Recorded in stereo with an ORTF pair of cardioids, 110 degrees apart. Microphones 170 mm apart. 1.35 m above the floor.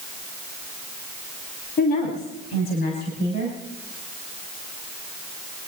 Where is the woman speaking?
65° left, 3.5 m; by 3.6 s 75° left, 6 m.